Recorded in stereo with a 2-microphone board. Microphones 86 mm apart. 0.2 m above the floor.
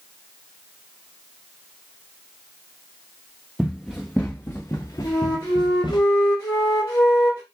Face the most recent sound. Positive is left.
turn(degrees=50)  # may be behind; listen again after turning